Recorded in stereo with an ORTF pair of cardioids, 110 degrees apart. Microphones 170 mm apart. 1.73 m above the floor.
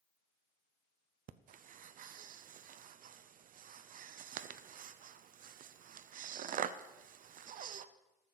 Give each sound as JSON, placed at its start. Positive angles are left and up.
{"t": 1.3, "sound": "breathing", "azimuth_deg": -50, "distance_m": 0.8}